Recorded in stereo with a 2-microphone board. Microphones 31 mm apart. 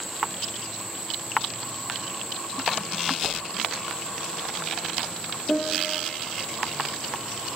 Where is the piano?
30° left (ahead or behind), 1.7 m.